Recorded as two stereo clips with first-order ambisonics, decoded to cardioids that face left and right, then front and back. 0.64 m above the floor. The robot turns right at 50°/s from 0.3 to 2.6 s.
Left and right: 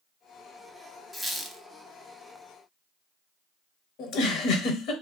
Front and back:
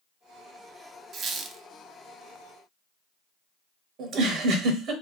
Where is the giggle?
130° left, 0.7 m.